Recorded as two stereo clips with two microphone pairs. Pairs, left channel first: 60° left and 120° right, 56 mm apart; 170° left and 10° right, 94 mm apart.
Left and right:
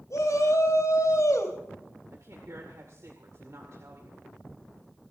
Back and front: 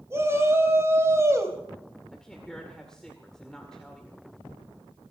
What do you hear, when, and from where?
0.1 s a shout: 50° left, 4.5 m
2.1 s a woman speaking: 105° right, 2 m